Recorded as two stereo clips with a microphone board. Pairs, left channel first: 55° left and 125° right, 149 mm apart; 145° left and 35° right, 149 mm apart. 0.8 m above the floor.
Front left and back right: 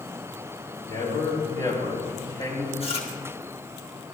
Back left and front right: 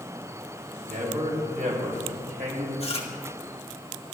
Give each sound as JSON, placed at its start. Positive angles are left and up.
{"t": 0.8, "sound": "a man speaking", "azimuth_deg": -5, "distance_m": 5.0}
{"t": 2.8, "sound": "chewing", "azimuth_deg": 100, "distance_m": 1.9}